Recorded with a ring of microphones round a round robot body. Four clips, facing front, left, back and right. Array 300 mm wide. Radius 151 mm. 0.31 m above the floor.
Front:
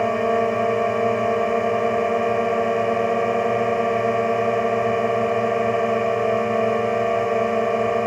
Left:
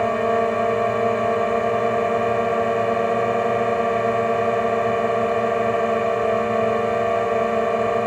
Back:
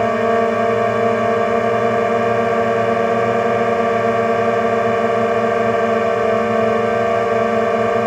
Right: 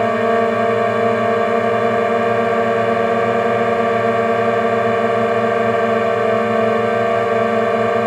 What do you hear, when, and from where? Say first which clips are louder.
0.0 s a drone: right 4 dB, back 4 dB; 130° right